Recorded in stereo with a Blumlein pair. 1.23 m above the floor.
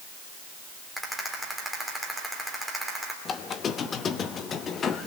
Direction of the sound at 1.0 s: 5° right.